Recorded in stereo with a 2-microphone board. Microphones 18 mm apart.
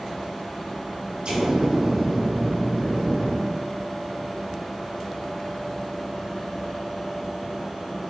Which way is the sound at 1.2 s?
65° right (ahead or behind).